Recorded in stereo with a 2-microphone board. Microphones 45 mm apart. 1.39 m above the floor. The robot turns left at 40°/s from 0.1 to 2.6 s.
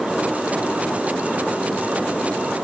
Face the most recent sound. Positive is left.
No sound to turn to.